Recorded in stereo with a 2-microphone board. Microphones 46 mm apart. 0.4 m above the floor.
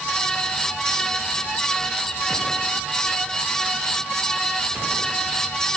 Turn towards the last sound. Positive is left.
No sound to turn to.